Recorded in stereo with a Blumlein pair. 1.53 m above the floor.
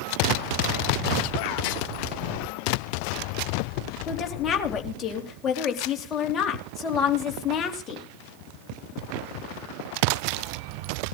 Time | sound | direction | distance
4.1 | a woman speaking | 25° left | 3 m